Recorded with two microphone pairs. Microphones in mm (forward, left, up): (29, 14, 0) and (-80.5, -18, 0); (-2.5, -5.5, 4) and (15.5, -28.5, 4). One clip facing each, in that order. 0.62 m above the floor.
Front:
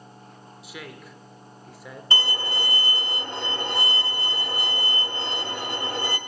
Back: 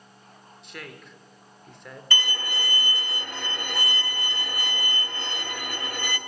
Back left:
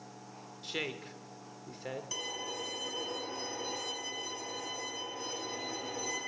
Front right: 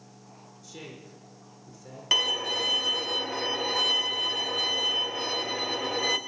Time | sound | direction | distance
0.6 | a woman speaking | 105° left | 1.6 m
2.1 | a violin | 45° right | 1.2 m